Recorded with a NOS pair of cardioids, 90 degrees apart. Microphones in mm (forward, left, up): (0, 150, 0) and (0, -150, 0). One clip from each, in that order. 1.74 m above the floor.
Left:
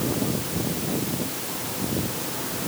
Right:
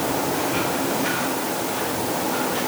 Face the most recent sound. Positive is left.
No sound to turn to.